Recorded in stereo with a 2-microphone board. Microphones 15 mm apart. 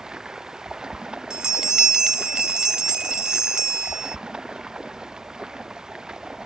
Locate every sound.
0.0 s running water: 85° right
1.3 s a bell: 60° right (ahead or behind)